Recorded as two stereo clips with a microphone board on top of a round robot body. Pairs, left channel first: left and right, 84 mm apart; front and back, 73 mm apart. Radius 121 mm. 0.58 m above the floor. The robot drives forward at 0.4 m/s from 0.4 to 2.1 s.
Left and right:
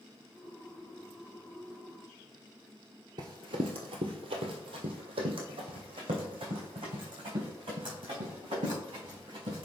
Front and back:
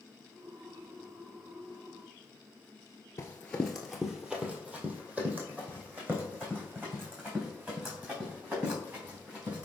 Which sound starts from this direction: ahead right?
Running footsteps, at 3.2 s.